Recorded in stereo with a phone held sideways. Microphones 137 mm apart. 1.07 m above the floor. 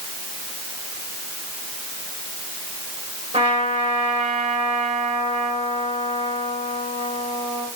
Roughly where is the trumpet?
Right.